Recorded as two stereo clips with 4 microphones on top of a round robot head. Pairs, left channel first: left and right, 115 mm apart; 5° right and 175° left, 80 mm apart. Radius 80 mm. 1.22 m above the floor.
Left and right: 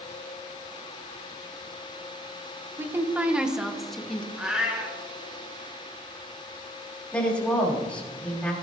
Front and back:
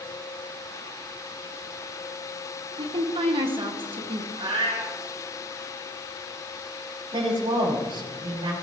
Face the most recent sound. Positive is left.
turn(degrees=170)